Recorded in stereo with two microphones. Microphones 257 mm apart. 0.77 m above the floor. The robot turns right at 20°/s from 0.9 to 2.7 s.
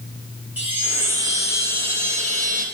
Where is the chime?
170° right, 1.2 m; by 2.6 s 135° right, 1.2 m.